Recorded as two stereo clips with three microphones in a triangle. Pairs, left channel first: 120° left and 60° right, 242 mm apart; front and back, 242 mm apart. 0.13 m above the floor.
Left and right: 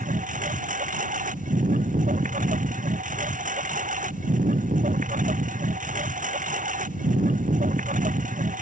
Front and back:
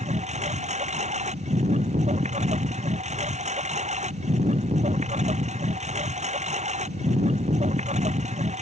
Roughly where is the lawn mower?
Behind right.